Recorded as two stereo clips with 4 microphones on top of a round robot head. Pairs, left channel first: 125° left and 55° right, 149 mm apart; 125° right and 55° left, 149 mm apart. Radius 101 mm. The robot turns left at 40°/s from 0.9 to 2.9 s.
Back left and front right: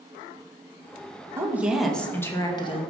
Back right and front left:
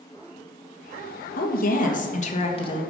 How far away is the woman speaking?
About 1.9 m.